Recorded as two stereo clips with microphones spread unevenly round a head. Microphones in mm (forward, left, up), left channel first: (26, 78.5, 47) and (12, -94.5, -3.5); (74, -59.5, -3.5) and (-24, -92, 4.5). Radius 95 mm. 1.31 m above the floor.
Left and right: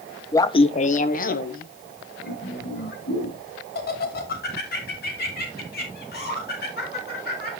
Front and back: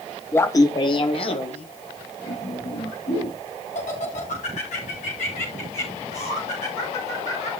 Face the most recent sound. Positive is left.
turn(degrees=50)